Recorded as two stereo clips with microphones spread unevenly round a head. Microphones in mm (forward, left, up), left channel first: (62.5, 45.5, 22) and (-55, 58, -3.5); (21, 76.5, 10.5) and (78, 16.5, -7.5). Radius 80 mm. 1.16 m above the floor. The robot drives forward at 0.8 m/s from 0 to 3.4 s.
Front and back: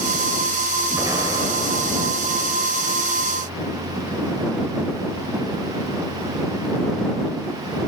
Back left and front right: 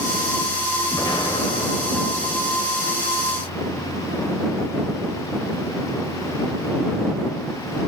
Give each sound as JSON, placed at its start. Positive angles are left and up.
{"t": 0.9, "sound": "an explosion", "azimuth_deg": 105, "distance_m": 2.5}